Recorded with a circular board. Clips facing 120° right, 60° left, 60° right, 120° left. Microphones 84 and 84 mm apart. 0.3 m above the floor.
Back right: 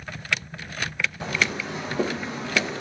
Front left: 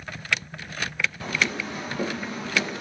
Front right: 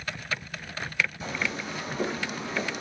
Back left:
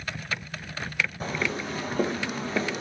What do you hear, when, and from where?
1.2 s footsteps: 170° left, 9.5 m; by 2.8 s 175° left, 8.5 m